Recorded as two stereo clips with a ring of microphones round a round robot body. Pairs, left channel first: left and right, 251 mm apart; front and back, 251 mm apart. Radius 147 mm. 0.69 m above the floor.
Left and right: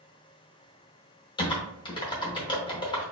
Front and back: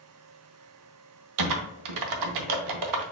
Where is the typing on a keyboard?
165° left, 0.6 m.